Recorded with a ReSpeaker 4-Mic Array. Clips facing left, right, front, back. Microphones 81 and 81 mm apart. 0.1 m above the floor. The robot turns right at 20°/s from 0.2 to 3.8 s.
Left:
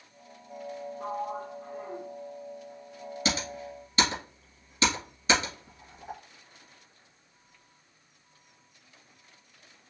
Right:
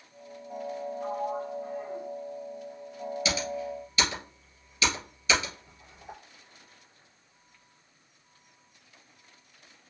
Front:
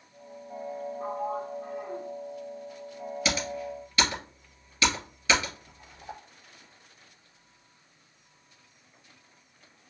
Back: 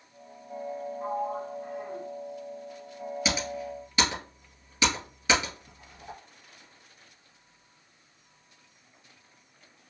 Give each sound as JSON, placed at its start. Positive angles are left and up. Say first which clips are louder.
{"t": 1.0, "sound": "a sliding door", "louder": "right 1 dB, back 1 dB", "azimuth_deg": 25, "distance_m": 2.0}
{"t": 3.2, "sound": "typing on a keyboard", "louder": "even, front 1 dB", "azimuth_deg": 105, "distance_m": 2.0}